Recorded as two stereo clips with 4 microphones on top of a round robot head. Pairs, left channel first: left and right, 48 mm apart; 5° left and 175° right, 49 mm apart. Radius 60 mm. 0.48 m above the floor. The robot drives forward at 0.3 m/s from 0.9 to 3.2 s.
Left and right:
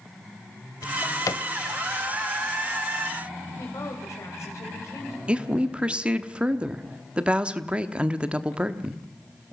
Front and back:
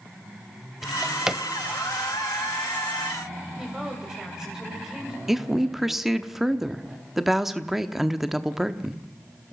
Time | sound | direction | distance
0.8 | a drawer | 95° left | 0.8 m
3.6 | a woman speaking | 110° left | 3 m
5.3 | a woman speaking | 100° right | 1.1 m